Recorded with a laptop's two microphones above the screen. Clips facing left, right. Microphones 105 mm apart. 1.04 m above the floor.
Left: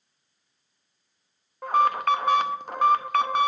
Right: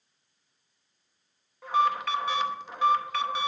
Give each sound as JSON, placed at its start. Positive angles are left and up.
{"t": 1.6, "sound": "an alarm", "side_deg": 50, "distance_m": 0.9}